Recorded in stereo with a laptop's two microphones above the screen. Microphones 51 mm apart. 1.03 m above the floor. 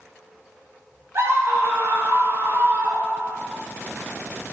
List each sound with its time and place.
1.1 s a scream: 65° right (ahead or behind), 4.5 m; by 3.4 s 45° right (ahead or behind), 5 m